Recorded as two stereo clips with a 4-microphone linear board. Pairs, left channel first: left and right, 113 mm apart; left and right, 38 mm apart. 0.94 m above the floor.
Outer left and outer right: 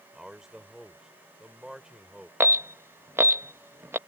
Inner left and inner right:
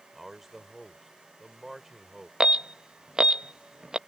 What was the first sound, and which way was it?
A man speaking, 5° right (ahead or behind).